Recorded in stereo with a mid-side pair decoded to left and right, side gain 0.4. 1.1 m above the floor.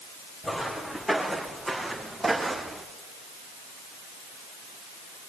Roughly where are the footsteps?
Ahead.